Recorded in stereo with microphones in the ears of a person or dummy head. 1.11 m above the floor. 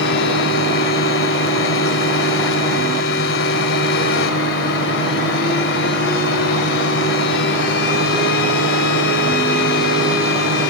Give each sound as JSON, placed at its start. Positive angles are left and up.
{"t": 0.0, "sound": "a fan", "side_deg": 60, "distance_m": 1.4}